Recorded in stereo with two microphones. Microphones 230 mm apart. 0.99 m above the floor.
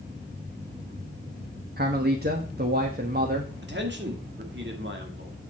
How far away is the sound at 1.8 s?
About 1.1 m.